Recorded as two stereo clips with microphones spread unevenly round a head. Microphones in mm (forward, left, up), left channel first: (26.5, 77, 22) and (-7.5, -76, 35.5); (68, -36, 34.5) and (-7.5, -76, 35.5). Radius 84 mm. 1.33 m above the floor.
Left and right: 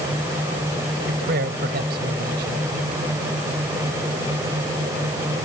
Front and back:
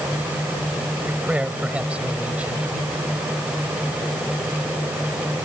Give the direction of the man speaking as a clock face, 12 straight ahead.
3 o'clock.